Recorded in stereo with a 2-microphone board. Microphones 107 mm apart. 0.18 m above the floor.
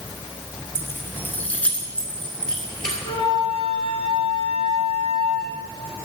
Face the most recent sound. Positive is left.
turn(degrees=60)  # may be behind; listen again after turning